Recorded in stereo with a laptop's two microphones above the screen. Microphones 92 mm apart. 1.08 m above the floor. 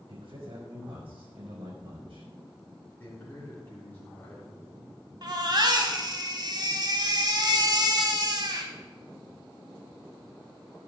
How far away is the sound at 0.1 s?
About 5 m.